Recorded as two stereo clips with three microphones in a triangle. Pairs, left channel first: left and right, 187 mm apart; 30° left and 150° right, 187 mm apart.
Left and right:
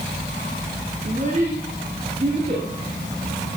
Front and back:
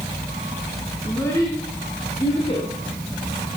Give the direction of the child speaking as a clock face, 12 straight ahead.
2 o'clock.